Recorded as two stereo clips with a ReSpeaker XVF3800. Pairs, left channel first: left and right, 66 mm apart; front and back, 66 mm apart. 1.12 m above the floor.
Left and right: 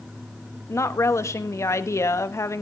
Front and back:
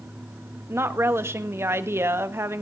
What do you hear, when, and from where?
0.7 s a woman speaking: 130° left, 1.2 m